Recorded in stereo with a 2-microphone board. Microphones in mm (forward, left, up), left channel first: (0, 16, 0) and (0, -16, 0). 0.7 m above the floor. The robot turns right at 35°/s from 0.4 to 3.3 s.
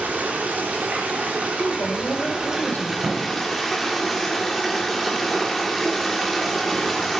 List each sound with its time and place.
0.0 s running water: 100° right, 1.8 m; by 7.2 s 5° left, 1.8 m
1.6 s a woman speaking: 80° left, 2.0 m; by 2.9 s 130° left, 2.0 m
3.0 s a thud: 60° right (ahead or behind), 2.5 m; by 3.3 s 55° right (ahead or behind), 2.5 m